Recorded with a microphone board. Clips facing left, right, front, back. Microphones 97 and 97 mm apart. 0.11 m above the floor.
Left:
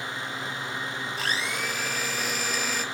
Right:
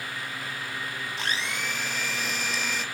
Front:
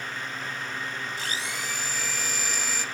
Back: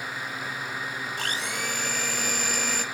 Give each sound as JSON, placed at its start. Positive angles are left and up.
{"t": 1.2, "sound": "a blender", "azimuth_deg": 180, "distance_m": 1.7}